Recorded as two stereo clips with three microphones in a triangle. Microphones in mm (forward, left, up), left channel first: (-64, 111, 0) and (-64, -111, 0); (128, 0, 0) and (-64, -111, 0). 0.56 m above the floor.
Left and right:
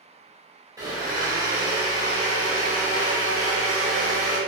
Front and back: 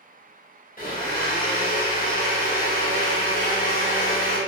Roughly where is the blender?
Ahead.